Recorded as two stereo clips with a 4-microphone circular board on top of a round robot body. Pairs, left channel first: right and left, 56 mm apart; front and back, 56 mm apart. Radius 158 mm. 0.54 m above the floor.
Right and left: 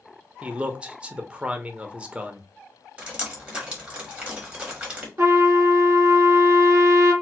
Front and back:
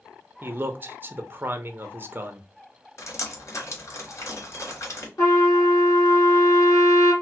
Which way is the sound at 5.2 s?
40° left.